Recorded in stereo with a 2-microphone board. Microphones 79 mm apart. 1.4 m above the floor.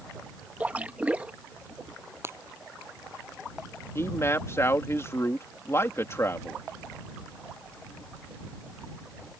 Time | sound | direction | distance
0.6 | a splash | 20° right (ahead or behind) | ?
2.2 | breaking glass | 30° right (ahead or behind) | ?
4.0 | a man speaking | 35° left (ahead or behind) | ?